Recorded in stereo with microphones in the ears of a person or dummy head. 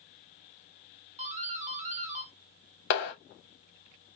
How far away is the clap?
About 2 m.